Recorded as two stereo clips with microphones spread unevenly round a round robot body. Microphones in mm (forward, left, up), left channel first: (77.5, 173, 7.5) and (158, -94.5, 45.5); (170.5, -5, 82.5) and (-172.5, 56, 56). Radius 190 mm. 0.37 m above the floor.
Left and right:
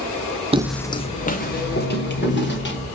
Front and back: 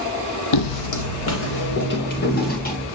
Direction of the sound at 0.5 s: 10° right.